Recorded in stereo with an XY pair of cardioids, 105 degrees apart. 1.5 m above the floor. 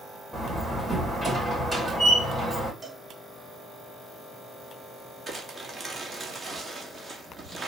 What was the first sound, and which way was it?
A door slam, 10° right.